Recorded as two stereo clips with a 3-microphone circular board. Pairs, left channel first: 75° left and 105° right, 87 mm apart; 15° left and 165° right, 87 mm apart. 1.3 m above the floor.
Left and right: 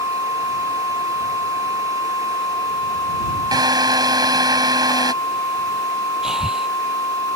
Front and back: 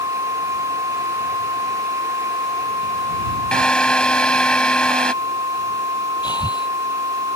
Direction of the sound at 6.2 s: 20° right.